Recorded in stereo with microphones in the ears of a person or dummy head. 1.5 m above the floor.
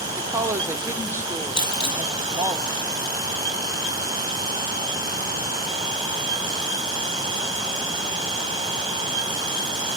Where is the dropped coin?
25° left (ahead or behind), 3 m.